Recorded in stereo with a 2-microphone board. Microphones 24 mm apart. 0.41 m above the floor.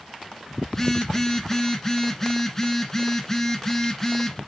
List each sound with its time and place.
0.7 s a phone buzzing: 15° left (ahead or behind), 1.6 m